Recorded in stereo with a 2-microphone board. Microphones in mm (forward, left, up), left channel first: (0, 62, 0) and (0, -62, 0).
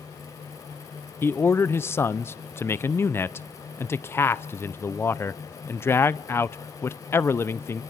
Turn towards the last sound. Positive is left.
turn(degrees=20)  # may be behind; listen again after turning